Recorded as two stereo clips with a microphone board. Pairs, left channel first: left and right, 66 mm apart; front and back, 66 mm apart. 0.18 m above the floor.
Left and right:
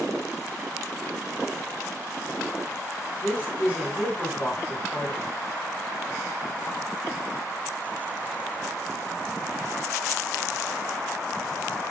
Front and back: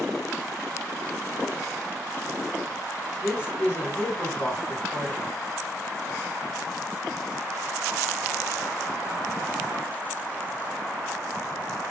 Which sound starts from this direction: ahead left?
A man speaking, at 3.2 s.